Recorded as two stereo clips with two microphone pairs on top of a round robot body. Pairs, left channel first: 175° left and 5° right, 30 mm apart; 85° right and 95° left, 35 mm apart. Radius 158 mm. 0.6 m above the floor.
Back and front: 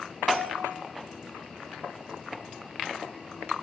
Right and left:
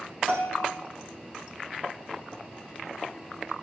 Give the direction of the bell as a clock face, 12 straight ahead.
10 o'clock.